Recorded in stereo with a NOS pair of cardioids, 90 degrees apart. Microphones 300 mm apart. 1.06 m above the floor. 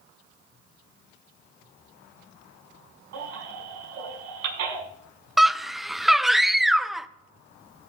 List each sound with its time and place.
3.1 s a baby crying: 65° right, 7 m
5.4 s a scream: straight ahead, 0.5 m